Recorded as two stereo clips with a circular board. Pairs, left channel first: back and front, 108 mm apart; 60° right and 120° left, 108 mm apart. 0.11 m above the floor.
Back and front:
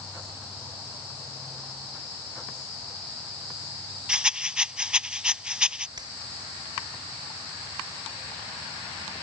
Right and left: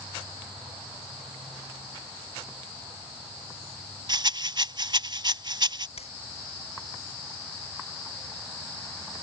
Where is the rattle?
80° left.